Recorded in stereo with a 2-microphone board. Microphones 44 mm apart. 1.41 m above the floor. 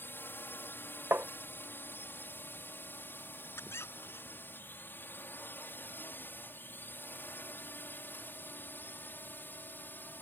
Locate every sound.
0.0 s a drone: 50° left (ahead or behind); by 10.2 s 45° left (ahead or behind)
1.1 s tapping: 60° right (ahead or behind)
3.6 s a squeak: 80° left